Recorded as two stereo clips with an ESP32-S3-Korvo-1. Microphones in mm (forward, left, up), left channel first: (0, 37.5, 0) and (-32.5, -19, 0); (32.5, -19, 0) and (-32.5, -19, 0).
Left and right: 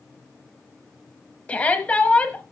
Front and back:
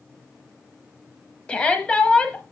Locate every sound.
1.5 s a shout: 40° left, 1.0 m